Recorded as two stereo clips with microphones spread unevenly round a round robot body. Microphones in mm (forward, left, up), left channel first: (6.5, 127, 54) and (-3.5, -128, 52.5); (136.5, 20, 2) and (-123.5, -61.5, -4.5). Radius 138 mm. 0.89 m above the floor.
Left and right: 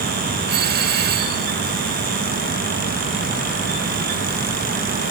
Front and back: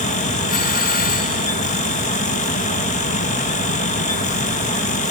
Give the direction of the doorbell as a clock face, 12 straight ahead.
1 o'clock.